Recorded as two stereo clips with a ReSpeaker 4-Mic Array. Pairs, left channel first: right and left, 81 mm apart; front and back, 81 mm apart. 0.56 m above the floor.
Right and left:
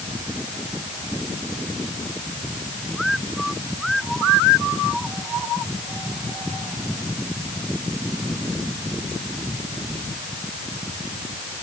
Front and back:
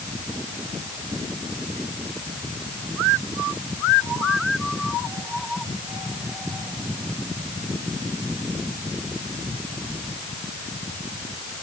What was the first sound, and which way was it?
Only background noise.